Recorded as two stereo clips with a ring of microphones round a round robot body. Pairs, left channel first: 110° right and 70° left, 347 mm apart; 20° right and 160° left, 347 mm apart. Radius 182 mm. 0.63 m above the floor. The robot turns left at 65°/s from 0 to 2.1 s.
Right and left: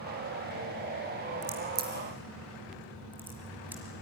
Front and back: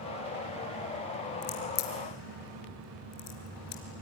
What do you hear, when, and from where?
1.4 s a crack: 25° left, 3.5 m; by 3.8 s 15° right, 3.5 m